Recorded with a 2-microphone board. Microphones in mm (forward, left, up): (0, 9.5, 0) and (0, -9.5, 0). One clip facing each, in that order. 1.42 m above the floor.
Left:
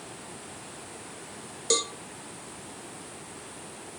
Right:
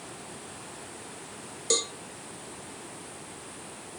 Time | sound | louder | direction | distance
1.7 | a cowbell | left 1 dB | centre (ahead or behind) | 0.8 m